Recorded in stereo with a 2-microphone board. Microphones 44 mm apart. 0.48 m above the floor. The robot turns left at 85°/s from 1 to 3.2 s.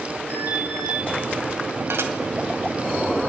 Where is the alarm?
60° right (ahead or behind), 9 m.